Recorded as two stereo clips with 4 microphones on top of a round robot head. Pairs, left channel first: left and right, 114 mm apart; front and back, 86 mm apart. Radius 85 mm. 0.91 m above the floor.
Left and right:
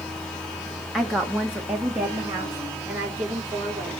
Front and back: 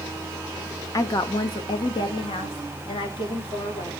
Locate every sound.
0.9 s a woman speaking: straight ahead, 1.0 m; by 3.9 s 20° right, 2.5 m